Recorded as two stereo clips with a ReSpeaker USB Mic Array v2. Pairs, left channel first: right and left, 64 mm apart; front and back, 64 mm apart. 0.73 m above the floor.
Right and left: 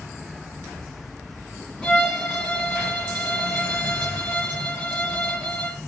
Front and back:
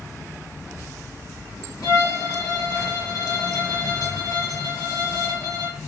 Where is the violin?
15° right, 2 m.